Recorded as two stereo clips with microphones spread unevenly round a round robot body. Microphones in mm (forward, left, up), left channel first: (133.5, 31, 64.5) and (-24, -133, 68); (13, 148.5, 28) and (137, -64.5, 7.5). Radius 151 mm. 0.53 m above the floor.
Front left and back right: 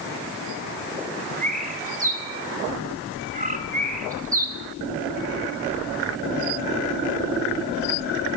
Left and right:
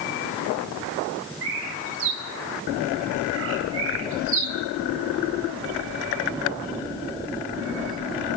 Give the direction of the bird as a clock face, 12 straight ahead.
3 o'clock.